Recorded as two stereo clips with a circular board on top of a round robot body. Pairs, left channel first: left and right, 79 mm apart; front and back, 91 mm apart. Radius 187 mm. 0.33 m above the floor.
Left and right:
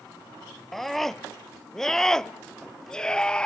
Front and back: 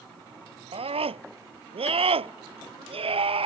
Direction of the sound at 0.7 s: 175° left.